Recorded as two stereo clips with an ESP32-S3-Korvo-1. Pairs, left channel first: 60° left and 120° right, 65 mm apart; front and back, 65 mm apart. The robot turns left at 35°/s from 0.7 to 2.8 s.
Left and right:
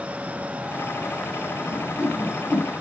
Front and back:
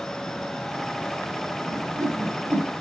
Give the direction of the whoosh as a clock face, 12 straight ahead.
7 o'clock.